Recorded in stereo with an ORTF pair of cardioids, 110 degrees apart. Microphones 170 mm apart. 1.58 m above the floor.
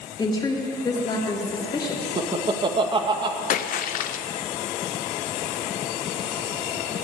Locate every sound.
0.2 s a woman speaking: 25° left, 3 m
2.2 s laughter: 30° right, 1.7 m
3.5 s a splash: 55° left, 0.6 m